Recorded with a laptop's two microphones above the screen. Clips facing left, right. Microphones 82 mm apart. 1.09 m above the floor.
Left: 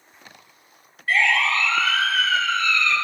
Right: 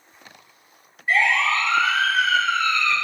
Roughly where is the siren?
Centre.